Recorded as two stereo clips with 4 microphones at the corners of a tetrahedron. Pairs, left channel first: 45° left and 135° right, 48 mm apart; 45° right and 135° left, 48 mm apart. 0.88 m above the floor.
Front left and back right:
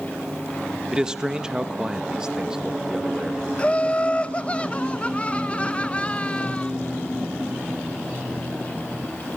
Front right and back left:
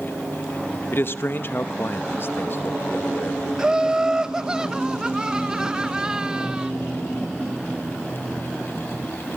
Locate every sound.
0.9 s a man speaking: 65° right, 0.9 m
3.6 s laughter: 80° left, 0.6 m